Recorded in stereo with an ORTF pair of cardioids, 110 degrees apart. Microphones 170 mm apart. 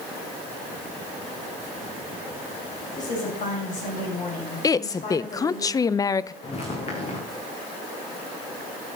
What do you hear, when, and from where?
3.0 s a woman speaking: 50° left, 8 m
4.6 s a woman speaking: 20° left, 0.5 m
6.4 s footsteps: 40° left, 6 m